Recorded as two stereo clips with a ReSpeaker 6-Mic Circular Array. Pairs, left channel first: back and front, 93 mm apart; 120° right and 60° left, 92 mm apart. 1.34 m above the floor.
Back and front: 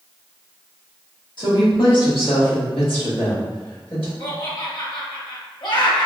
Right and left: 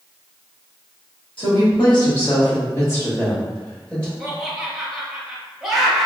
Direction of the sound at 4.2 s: 145° left.